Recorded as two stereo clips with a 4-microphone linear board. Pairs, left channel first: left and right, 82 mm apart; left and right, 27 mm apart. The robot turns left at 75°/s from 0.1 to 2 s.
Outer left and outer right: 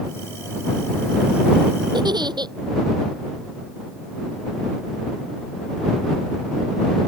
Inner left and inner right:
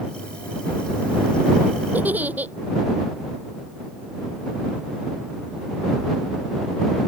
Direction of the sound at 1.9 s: 70° right (ahead or behind).